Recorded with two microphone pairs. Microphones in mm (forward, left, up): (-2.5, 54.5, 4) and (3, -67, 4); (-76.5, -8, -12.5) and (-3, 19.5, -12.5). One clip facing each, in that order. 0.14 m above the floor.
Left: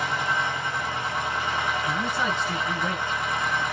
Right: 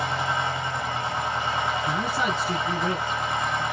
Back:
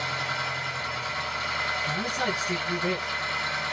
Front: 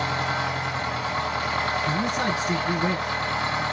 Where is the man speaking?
40° right, 2.5 m.